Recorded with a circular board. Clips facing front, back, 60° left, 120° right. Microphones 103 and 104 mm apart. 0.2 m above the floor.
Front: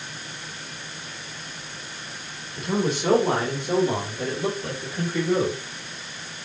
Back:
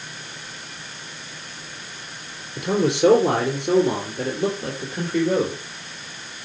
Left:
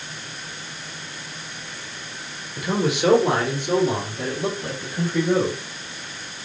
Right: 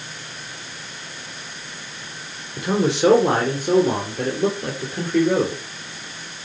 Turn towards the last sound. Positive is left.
turn(degrees=-140)